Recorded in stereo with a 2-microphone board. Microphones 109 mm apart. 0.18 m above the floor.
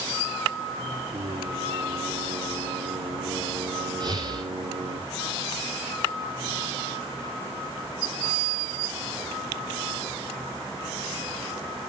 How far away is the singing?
About 4 m.